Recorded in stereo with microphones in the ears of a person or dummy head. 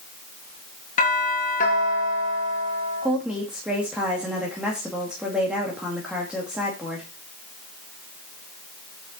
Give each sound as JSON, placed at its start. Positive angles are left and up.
{"t": 1.0, "sound": "a doorbell", "side_deg": 40, "distance_m": 3.0}
{"t": 3.0, "sound": "a woman speaking", "side_deg": -5, "distance_m": 2.5}